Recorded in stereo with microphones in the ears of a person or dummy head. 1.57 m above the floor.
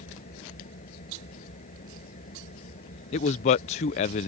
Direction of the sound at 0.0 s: 40° left (ahead or behind).